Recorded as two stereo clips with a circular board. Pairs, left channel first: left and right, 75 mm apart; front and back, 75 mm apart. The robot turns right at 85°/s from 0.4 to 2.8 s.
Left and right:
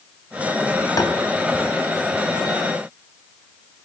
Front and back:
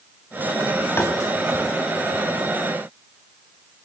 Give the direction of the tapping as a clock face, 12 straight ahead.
10 o'clock.